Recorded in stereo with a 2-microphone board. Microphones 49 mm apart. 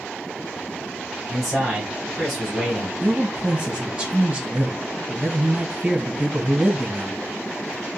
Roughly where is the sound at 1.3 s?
Centre.